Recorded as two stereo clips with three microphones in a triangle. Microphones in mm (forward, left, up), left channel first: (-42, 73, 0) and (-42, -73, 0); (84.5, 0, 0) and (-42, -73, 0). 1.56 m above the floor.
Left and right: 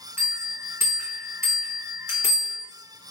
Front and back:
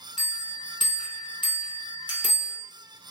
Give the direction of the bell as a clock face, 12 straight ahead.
1 o'clock.